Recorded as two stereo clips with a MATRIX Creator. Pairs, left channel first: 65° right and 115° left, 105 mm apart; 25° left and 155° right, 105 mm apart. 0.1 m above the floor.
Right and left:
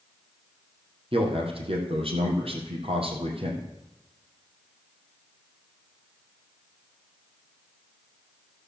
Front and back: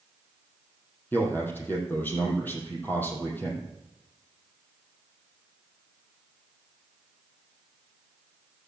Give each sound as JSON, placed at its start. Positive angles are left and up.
{"t": 1.1, "sound": "a man speaking", "azimuth_deg": 95, "distance_m": 4.0}